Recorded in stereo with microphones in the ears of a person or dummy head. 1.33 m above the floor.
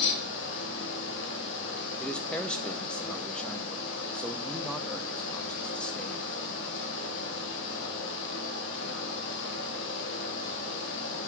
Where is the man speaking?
5° right (ahead or behind), 0.6 m.